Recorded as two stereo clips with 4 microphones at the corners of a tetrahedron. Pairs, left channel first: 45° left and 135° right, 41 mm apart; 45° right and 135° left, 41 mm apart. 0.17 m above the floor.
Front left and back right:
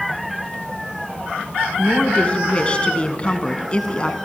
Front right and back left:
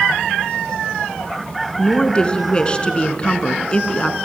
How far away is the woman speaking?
About 1.5 m.